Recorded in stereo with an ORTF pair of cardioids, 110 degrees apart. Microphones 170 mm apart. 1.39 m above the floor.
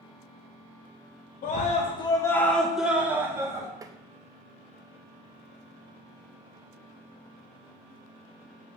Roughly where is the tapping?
Ahead.